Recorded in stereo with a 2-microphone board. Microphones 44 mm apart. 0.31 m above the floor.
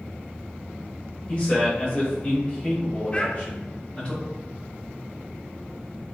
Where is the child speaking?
25° left (ahead or behind), 0.7 m.